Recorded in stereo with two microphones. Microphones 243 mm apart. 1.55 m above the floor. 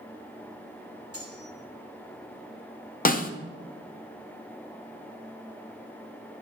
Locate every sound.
1.1 s cutlery clinking: 75° right (ahead or behind), 2.5 m
3.0 s a snare drum: 35° left (ahead or behind), 0.6 m